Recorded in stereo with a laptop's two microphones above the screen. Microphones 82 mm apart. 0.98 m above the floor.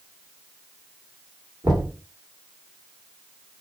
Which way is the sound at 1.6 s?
45° right (ahead or behind).